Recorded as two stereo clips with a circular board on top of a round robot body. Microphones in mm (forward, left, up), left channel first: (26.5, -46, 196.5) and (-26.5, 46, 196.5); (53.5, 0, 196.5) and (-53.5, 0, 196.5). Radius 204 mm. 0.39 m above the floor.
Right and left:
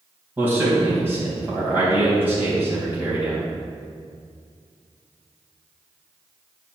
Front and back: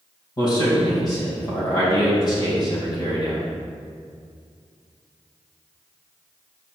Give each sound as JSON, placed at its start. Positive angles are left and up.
{"t": 0.4, "sound": "a man speaking", "azimuth_deg": 50, "distance_m": 3.0}